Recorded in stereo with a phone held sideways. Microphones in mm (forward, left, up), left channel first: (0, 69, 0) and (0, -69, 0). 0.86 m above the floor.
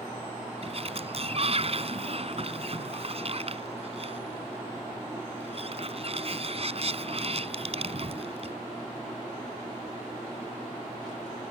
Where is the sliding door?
45° right (ahead or behind).